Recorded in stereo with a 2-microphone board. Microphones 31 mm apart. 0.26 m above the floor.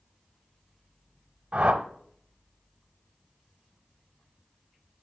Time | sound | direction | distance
1.5 | a whoosh | 35° right (ahead or behind) | 0.7 m